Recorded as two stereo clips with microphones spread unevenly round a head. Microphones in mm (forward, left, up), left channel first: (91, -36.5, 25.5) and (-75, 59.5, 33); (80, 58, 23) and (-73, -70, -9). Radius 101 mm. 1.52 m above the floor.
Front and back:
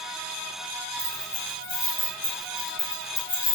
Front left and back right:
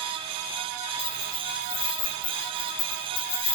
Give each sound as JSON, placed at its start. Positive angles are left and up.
{"t": 1.0, "sound": "keys jangling", "azimuth_deg": 60, "distance_m": 5.5}